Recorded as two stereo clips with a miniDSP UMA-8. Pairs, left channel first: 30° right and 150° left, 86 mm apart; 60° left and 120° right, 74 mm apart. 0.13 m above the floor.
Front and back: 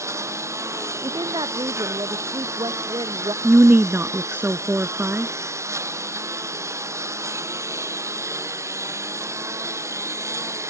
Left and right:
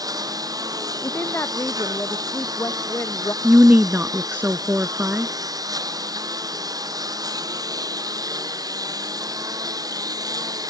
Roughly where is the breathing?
No breathing in this recording.